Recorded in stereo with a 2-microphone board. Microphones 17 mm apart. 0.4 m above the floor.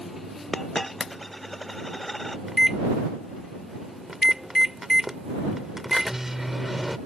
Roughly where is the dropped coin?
Centre.